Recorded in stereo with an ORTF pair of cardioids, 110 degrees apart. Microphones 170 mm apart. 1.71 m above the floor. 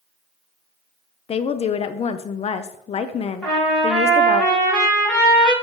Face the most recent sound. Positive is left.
turn(degrees=5)